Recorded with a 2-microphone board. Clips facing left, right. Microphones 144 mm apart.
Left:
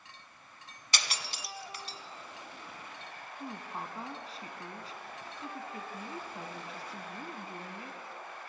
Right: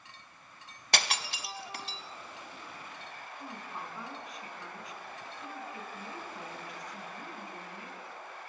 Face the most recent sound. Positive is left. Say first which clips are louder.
# left 3 dB
turn(degrees=30)  # may be behind; listen again after turning